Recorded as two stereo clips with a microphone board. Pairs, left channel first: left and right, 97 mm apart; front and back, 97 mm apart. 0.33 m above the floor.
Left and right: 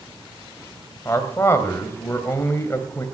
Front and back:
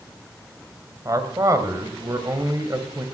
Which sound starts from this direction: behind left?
A man speaking, at 1.1 s.